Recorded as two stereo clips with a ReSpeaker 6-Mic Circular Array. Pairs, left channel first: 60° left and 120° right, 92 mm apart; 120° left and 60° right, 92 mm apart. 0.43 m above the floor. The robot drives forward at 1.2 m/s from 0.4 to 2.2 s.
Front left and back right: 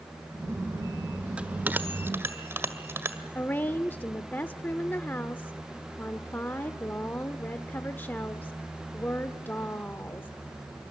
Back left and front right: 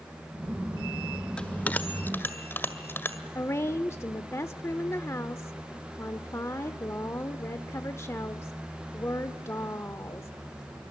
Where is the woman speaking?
110° left, 0.8 m.